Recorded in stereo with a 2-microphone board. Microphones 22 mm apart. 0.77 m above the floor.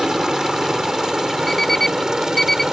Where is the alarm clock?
15° left (ahead or behind).